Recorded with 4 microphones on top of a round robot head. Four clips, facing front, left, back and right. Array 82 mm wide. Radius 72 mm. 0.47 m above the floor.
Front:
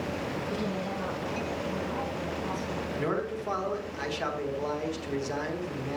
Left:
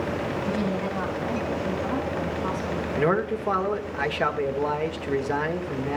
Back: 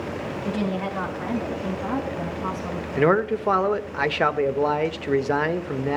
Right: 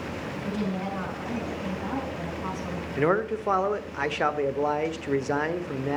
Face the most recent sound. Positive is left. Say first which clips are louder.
# even, back 13 dB
turn(degrees=-170)